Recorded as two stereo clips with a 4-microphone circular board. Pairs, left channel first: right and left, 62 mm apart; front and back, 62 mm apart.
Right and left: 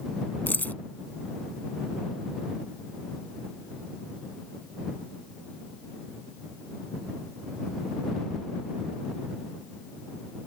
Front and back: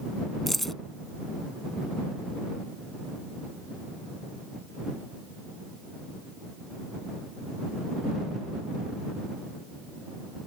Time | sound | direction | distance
0.5 | keys jangling | 80° right | ?